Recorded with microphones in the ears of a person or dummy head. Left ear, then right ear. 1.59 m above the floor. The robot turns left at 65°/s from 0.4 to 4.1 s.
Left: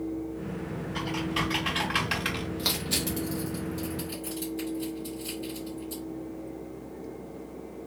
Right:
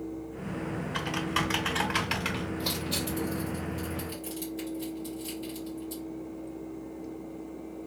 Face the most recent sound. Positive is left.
turn(degrees=-10)  # may be behind; listen again after turning